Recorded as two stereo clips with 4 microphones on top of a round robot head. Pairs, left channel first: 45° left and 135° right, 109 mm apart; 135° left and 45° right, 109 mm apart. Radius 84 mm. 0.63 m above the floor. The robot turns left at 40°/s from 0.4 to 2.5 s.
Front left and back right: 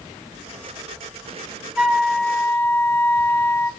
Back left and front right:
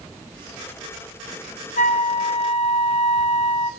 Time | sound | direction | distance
1.8 | a flute | 145° left | 1.1 m